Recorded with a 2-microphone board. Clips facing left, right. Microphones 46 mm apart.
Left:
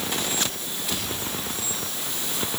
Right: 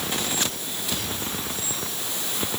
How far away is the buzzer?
No buzzer in this recording.